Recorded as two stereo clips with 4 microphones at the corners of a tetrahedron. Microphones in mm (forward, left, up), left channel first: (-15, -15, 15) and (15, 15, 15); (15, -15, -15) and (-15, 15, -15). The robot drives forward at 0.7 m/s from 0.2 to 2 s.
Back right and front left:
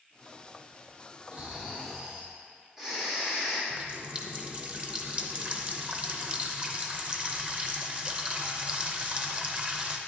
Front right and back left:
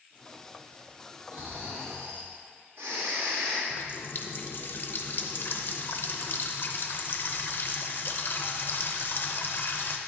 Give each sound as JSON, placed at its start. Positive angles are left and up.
{"t": 1.3, "sound": "snoring", "azimuth_deg": 105, "distance_m": 1.2}
{"t": 3.7, "sound": "a running tap", "azimuth_deg": -15, "distance_m": 0.6}